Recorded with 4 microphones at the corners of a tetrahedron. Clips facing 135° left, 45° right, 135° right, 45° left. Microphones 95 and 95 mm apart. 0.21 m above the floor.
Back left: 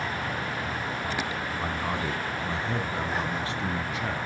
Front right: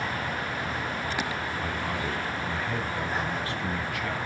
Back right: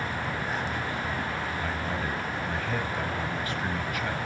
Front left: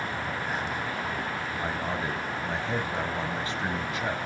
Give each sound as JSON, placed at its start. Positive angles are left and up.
{"t": 1.6, "sound": "a man speaking", "azimuth_deg": 90, "distance_m": 1.1}